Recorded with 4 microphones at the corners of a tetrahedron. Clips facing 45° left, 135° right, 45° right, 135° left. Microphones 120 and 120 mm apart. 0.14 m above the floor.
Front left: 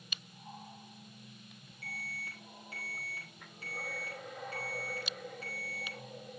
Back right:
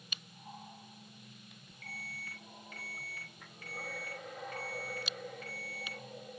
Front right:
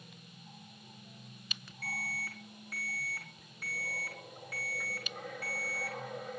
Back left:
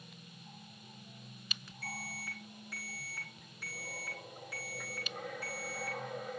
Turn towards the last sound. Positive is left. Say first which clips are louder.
# front left 2 dB, front right 2 dB
turn(degrees=-10)